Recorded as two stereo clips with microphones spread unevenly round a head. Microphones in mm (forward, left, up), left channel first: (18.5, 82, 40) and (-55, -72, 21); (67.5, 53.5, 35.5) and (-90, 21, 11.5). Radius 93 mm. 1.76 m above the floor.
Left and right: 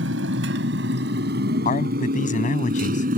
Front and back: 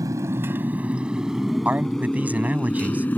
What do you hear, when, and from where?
0.0 s a motorcycle: 90° right; by 3.2 s 65° right
1.6 s a man speaking: 110° left